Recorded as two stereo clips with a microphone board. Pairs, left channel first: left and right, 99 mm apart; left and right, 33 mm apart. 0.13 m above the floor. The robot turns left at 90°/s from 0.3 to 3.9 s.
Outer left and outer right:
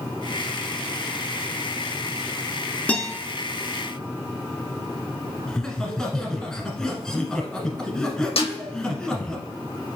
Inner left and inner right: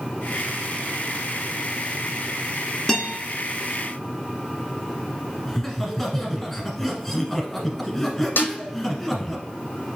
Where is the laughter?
5° left (ahead or behind), 1.3 m.